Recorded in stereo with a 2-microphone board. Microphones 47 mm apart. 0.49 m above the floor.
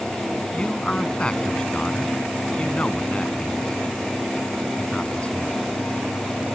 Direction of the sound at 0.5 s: 20° left (ahead or behind).